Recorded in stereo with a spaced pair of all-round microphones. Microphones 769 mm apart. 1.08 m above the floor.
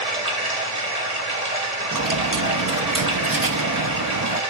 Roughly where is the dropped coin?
Right.